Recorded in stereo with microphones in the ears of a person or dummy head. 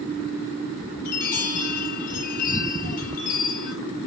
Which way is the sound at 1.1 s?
45° left (ahead or behind).